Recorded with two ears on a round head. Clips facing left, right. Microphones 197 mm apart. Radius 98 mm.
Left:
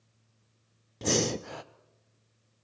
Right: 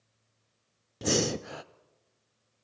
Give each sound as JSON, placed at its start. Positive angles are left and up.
{"t": 1.0, "sound": "breathing", "side_deg": -5, "distance_m": 0.6}